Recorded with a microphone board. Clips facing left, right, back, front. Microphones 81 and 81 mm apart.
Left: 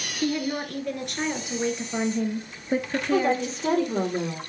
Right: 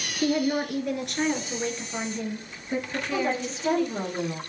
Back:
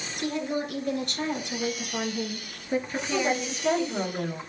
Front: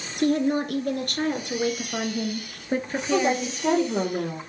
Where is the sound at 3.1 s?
45° left, 5 m.